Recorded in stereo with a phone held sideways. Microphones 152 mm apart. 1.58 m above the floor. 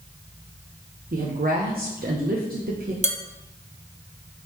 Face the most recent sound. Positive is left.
turn(degrees=-50)  # may be behind; listen again after turning